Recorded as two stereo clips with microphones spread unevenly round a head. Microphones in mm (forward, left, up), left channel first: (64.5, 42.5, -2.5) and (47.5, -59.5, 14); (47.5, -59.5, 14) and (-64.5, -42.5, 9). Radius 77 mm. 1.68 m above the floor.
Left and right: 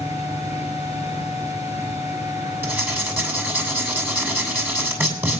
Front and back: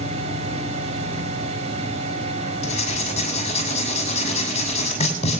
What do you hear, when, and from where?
0.0 s a fan: 165° right, 4 m
2.6 s writing: 35° right, 6.5 m